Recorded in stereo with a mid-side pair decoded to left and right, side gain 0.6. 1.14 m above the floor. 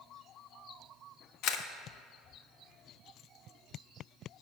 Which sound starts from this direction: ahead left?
A camera shutter, at 1.4 s.